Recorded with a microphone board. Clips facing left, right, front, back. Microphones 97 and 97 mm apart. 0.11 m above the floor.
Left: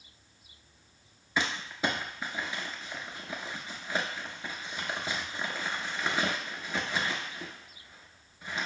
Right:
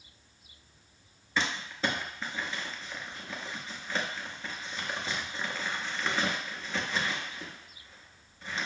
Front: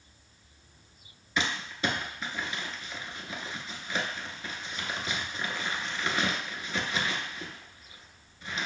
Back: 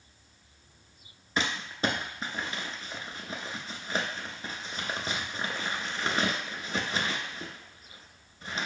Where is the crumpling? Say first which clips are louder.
Even, back 1 dB; 160° left, 0.7 m.